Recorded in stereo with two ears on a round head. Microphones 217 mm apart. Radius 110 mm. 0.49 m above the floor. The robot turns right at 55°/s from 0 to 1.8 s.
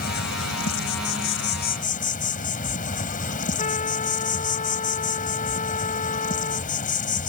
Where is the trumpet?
30° left (ahead or behind).